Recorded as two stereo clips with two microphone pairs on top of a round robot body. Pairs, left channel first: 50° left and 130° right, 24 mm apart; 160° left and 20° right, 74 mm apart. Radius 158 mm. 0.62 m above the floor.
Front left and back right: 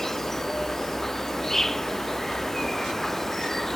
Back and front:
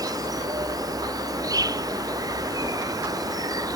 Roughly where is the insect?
Ahead right.